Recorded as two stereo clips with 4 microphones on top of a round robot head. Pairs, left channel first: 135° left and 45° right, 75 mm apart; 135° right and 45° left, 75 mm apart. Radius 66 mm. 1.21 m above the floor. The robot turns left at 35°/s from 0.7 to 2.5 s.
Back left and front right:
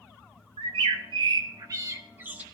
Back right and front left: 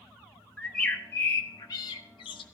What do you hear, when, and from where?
0.6 s a bird: 55° right, 0.8 m; by 2.4 s 115° right, 0.8 m